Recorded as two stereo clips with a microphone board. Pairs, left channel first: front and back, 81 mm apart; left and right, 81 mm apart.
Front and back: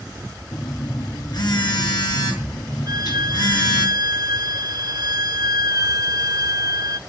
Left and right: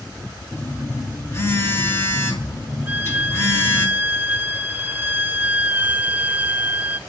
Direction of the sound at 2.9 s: 155° right.